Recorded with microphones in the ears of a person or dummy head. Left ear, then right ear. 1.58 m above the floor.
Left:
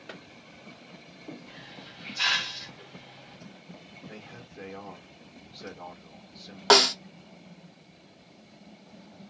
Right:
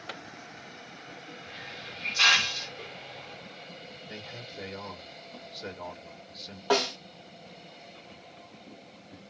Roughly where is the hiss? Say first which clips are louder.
Right 5 dB; right.